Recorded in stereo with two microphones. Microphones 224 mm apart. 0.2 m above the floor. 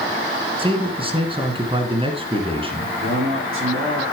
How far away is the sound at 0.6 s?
About 2.5 m.